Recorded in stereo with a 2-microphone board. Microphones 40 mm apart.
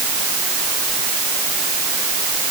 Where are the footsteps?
No footsteps in this recording.